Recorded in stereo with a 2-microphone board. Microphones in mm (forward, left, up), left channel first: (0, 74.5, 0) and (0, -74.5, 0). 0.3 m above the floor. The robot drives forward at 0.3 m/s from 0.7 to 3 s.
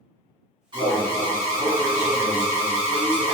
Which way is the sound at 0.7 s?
35° right (ahead or behind).